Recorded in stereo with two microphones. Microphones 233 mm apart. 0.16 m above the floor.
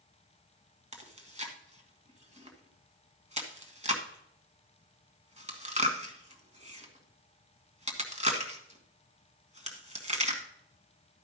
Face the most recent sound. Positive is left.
turn(degrees=-30)  # may be behind; listen again after turning